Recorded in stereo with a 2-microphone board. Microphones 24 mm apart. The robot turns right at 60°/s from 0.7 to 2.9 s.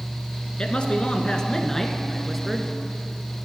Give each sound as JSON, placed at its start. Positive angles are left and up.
{"t": 0.6, "sound": "a man speaking", "azimuth_deg": 95, "distance_m": 1.4}